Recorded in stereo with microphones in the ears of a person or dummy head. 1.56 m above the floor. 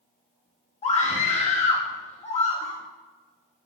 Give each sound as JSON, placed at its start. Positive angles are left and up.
{"t": 0.8, "sound": "a scream", "side_deg": 40, "distance_m": 3.5}